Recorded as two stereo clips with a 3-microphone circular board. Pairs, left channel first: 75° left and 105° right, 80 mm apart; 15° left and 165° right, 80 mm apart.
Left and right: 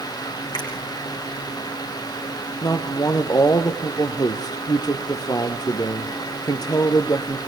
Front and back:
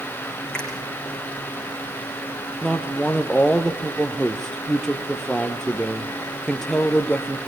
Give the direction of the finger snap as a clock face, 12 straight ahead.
9 o'clock.